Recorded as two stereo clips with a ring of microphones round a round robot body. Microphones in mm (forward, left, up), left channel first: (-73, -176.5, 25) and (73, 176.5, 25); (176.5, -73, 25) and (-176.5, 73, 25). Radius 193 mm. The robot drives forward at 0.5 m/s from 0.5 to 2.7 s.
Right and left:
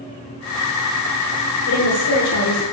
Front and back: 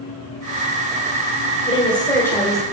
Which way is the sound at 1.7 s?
85° right.